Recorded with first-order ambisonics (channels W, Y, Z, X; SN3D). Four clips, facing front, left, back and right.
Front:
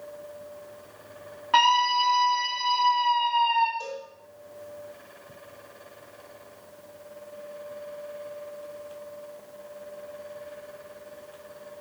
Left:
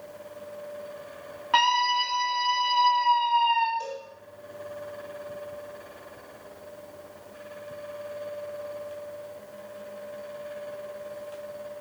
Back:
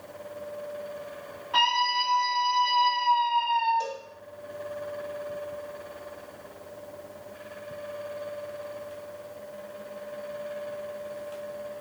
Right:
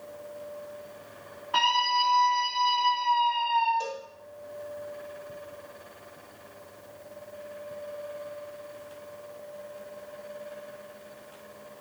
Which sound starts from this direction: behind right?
A cowbell, at 3.8 s.